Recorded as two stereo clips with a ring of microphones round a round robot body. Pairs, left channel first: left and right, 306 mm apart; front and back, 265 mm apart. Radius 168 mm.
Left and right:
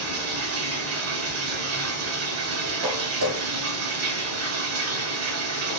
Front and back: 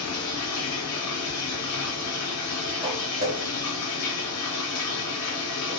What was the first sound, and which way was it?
Running water, 45° right.